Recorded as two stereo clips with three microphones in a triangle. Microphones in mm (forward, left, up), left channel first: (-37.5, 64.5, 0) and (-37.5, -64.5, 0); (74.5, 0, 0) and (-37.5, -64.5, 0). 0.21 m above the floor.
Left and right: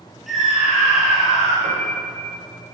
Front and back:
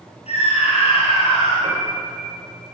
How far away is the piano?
About 9.5 m.